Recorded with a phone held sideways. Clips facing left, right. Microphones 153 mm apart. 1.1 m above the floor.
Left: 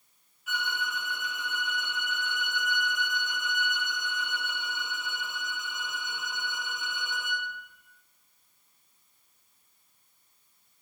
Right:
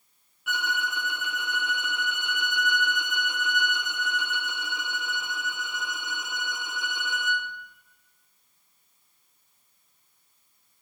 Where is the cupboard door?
I don't hear a cupboard door.